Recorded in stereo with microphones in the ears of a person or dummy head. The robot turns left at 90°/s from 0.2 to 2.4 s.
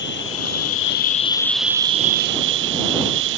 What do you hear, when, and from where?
0.0 s an insect: 120° left; by 3.4 s 75° right